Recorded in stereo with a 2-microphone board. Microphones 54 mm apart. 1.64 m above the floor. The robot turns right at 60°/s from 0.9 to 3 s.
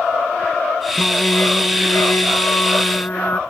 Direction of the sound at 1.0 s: 20° left.